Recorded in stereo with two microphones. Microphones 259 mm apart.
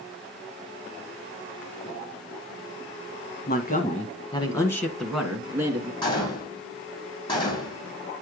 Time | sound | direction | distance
3.5 | a man speaking | 40° left (ahead or behind) | 1.3 m
6.0 | a gunshot | 20° left (ahead or behind) | 2.5 m